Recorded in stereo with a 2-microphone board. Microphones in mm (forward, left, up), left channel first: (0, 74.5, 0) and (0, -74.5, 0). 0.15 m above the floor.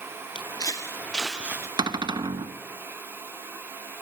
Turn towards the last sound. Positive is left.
turn(degrees=-30)  # may be behind; listen again after turning